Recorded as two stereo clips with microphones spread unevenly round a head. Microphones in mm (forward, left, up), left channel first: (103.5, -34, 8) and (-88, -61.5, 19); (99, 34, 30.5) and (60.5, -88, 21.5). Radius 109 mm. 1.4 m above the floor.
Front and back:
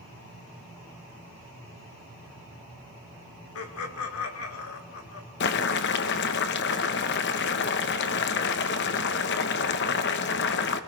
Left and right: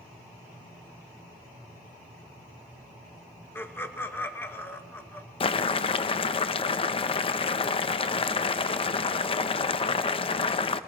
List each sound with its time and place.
3.5 s laughter: straight ahead, 2 m
5.4 s boiling: 40° left, 0.7 m